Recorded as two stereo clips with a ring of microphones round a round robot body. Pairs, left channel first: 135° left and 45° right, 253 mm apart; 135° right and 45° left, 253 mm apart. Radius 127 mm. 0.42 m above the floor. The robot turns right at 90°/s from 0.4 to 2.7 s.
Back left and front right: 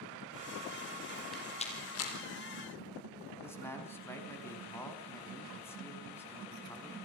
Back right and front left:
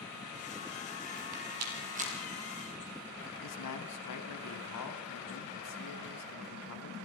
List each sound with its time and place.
1.3 s a rattle: 45° left, 6 m; by 2.1 s 120° left, 6 m
3.4 s a man speaking: 145° right, 4 m